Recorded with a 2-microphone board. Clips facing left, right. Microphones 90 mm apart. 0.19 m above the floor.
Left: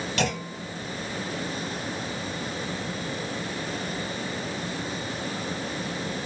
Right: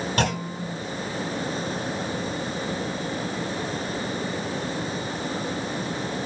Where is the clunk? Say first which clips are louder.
Right 2 dB; 45° right (ahead or behind), 2.0 m.